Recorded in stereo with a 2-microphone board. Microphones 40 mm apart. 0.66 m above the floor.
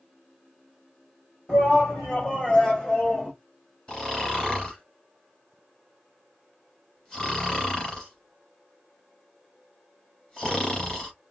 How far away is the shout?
About 3.5 m.